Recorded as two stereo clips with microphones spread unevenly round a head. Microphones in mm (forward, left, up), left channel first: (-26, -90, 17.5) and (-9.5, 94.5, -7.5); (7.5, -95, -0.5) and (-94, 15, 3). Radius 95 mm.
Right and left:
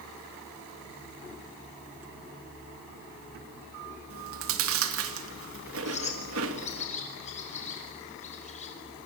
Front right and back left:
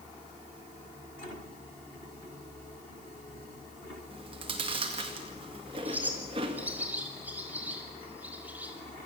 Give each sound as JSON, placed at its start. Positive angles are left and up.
{"t": 4.1, "sound": "chewing", "azimuth_deg": 65, "distance_m": 2.0}
{"t": 5.8, "sound": "a bird", "azimuth_deg": -150, "distance_m": 5.5}